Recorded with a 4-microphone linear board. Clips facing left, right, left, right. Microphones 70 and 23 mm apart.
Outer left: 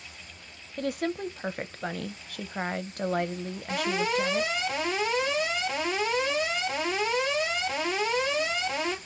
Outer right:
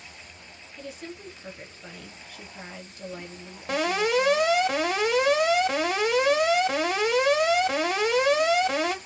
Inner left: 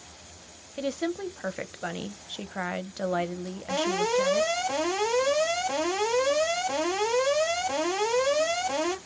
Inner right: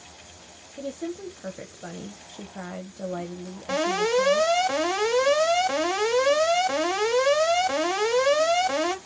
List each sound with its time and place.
0.8 s a woman speaking: 65° left (ahead or behind), 0.5 m
3.7 s an alarm: 65° right (ahead or behind), 1.9 m